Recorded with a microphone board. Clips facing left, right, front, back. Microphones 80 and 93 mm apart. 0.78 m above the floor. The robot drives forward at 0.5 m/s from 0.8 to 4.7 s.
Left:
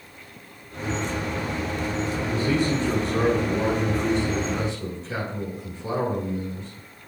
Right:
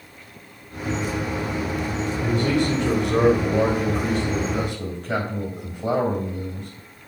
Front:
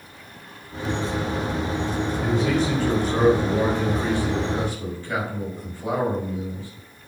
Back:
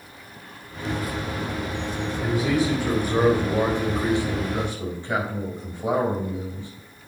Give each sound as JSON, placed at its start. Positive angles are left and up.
{"t": 2.2, "sound": "a man speaking", "azimuth_deg": -95, "distance_m": 3.5}